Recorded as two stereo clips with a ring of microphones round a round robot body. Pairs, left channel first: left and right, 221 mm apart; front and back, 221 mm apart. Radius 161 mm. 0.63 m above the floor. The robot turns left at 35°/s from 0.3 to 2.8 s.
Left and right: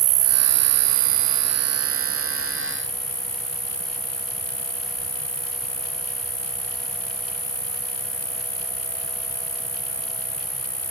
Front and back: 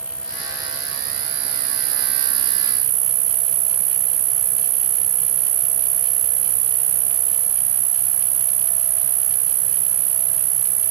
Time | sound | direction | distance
0.0 | an insect | 95° right | ?